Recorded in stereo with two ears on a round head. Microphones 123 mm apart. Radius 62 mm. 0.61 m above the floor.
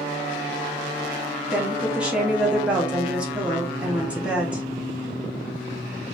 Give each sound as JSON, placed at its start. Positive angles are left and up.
{"t": 1.5, "sound": "a woman speaking", "side_deg": -5, "distance_m": 1.5}